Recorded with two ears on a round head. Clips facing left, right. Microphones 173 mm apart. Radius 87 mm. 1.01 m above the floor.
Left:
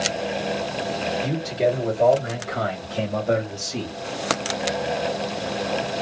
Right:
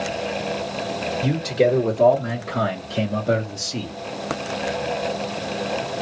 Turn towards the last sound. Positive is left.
turn(degrees=-15)  # may be behind; listen again after turning